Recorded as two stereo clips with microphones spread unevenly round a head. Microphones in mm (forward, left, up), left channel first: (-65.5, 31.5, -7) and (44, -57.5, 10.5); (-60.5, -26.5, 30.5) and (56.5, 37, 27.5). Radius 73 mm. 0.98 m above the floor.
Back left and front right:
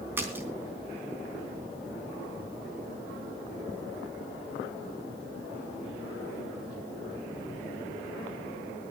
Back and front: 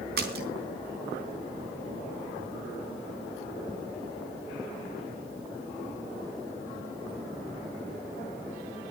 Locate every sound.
0.2 s a splash: 35° left, 3.5 m